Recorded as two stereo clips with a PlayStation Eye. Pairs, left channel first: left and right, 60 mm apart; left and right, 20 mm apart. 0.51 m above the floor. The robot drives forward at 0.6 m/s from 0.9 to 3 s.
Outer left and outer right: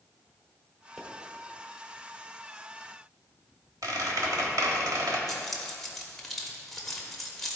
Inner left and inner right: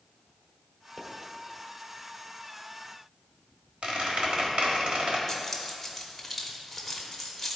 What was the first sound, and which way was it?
A pop, 10° right (ahead or behind).